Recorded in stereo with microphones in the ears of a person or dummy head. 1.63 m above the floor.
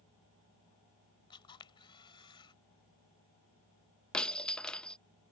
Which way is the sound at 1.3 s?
25° left (ahead or behind).